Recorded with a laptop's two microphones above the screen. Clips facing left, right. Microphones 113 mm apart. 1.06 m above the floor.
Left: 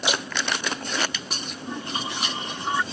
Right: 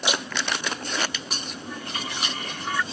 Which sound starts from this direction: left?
A toilet flushing, at 1.6 s.